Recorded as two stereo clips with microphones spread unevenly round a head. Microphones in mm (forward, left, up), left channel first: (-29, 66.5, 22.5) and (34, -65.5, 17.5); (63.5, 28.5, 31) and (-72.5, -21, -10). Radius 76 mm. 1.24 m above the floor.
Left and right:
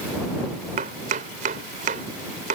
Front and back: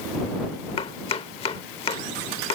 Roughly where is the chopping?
Ahead right.